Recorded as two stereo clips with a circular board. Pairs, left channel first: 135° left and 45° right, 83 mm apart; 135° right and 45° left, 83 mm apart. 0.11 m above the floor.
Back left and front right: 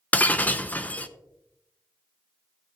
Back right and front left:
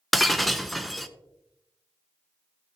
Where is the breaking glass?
135° left, 0.6 m.